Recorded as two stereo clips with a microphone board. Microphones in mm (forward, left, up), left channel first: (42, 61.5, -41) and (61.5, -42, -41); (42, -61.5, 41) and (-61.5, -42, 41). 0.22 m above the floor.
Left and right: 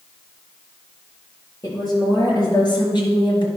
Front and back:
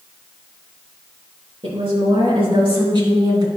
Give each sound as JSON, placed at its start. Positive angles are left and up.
{"t": 1.6, "sound": "a woman speaking", "azimuth_deg": 145, "distance_m": 4.0}